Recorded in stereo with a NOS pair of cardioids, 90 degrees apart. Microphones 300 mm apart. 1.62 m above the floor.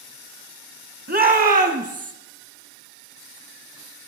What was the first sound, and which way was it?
A shout, 30° right.